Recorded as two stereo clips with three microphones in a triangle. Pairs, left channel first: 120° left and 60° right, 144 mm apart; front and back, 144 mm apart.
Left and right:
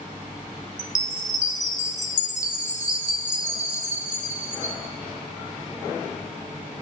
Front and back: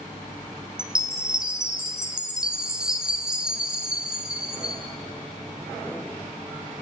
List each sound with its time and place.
0.8 s a chime: 95° left, 2.5 m